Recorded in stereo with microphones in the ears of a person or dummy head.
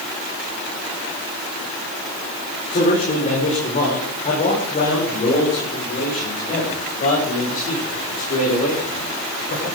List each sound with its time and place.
2.7 s a man speaking: 35° left (ahead or behind), 5 m